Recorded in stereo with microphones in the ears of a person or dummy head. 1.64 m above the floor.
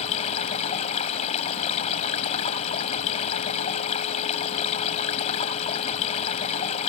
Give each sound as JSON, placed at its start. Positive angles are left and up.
{"t": 0.0, "sound": "running water", "side_deg": 40}